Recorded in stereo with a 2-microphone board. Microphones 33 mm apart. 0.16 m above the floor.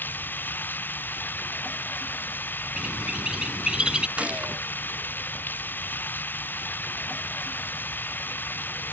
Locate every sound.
0.0 s running water: 85° left
2.8 s a bird: 30° right (ahead or behind)
4.2 s a gunshot: 40° right (ahead or behind)